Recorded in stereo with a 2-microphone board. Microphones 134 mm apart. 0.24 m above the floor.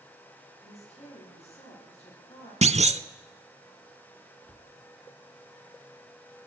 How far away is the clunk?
About 0.5 m.